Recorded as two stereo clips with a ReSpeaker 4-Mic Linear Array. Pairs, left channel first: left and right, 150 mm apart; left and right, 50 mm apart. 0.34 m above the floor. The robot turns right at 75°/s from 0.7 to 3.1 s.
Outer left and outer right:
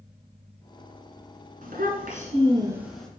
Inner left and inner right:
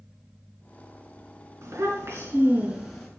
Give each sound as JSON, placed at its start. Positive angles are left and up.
{"t": 1.6, "sound": "a child speaking", "azimuth_deg": -100, "distance_m": 2.5}